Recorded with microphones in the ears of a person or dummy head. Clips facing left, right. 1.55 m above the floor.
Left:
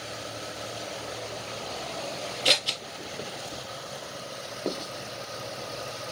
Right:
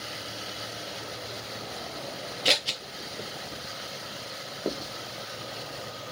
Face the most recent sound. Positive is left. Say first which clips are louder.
# even
turn(degrees=-10)  # may be behind; listen again after turning